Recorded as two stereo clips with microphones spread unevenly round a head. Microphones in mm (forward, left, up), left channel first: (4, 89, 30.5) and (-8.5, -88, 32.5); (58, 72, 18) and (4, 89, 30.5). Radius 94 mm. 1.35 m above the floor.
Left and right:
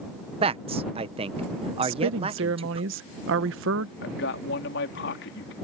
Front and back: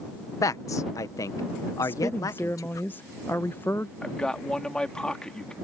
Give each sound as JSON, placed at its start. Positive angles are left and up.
{"t": 0.4, "sound": "a man speaking", "azimuth_deg": -35}
{"t": 1.8, "sound": "a woman speaking", "azimuth_deg": -85}
{"t": 4.0, "sound": "a man speaking", "azimuth_deg": 60}